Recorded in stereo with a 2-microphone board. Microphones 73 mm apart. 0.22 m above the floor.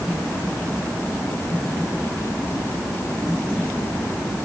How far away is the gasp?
No gasp in this recording.